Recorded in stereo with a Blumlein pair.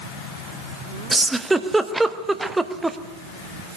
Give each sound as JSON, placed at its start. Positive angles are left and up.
{"t": 1.1, "sound": "a giggle", "azimuth_deg": -5, "distance_m": 0.9}